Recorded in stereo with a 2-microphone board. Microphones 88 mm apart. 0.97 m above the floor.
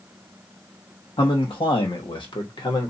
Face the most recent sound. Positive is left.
turn(degrees=60)  # may be behind; listen again after turning